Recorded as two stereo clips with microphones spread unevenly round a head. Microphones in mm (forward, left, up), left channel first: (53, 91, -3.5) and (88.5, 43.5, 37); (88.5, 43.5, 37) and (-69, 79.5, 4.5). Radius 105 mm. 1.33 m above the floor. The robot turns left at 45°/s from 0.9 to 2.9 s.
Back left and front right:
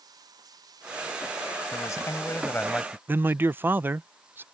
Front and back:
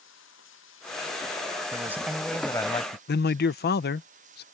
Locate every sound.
0.0 s running water: 45° right; by 4.5 s 135° right
1.7 s a man speaking: 95° left; by 3.0 s 45° left
3.1 s a man speaking: 10° left